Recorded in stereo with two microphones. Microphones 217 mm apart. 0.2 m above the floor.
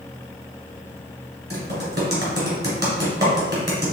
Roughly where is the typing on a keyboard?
Right.